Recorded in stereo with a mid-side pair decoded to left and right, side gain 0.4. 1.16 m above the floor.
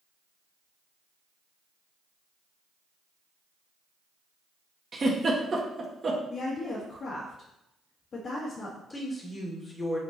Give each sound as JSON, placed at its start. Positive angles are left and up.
{"t": 4.9, "sound": "a giggle", "azimuth_deg": -40, "distance_m": 1.6}
{"t": 6.3, "sound": "a woman speaking", "azimuth_deg": 55, "distance_m": 1.6}
{"t": 8.9, "sound": "a woman speaking", "azimuth_deg": 30, "distance_m": 1.9}